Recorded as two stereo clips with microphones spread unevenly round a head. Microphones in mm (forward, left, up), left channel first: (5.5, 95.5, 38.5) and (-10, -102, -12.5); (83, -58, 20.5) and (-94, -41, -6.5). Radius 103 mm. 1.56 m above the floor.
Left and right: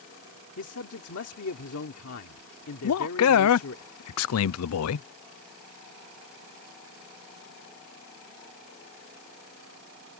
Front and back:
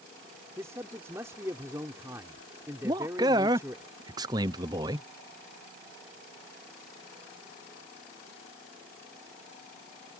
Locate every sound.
0.6 s a man speaking: 95° left
2.8 s a man speaking: 105° left